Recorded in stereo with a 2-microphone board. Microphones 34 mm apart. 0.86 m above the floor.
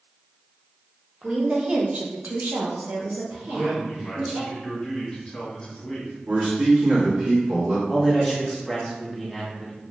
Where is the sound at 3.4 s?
15° left (ahead or behind), 1.3 m.